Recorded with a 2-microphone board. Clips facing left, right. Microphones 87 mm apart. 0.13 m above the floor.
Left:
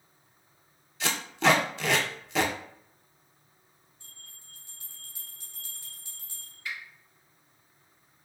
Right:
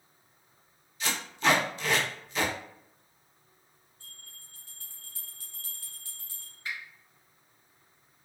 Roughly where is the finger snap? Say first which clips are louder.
Even; right.